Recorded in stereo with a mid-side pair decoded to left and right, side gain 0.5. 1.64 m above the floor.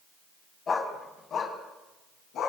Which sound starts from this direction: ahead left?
A dog barking, at 0.7 s.